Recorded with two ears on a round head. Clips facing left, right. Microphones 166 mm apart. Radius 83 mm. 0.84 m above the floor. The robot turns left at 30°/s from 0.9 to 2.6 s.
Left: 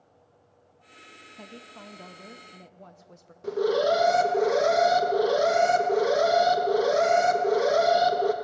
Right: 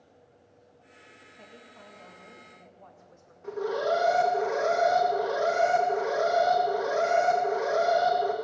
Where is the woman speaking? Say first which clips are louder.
Left 6 dB; 90° left, 0.5 m; by 3.3 s 55° left, 0.5 m.